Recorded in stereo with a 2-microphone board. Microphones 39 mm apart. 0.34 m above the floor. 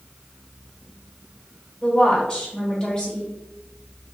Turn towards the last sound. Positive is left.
turn(degrees=15)  # may be behind; listen again after turning